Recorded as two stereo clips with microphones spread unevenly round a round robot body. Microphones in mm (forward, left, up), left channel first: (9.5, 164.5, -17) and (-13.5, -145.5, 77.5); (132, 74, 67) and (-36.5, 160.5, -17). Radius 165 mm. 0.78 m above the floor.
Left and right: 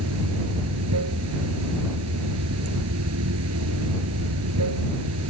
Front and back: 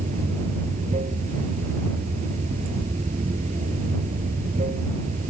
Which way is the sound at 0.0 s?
140° right.